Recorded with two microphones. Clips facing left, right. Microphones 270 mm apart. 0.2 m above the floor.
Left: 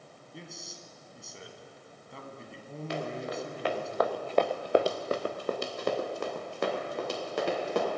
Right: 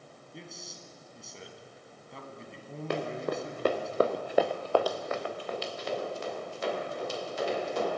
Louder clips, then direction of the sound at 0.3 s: Even; centre (ahead or behind).